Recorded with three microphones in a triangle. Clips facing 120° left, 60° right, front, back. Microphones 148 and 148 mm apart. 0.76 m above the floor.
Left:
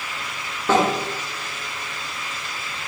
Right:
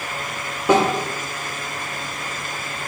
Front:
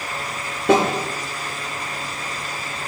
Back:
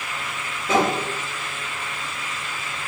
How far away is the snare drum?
About 10 m.